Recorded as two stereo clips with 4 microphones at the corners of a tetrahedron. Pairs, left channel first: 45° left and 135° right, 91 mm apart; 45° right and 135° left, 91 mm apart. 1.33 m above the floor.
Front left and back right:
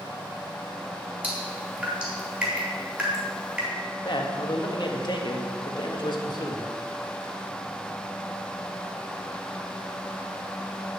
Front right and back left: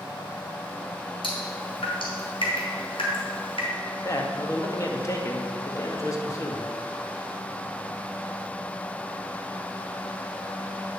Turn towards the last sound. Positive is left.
turn(degrees=10)